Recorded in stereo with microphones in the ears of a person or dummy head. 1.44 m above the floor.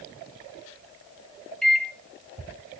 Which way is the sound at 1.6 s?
5° right (ahead or behind).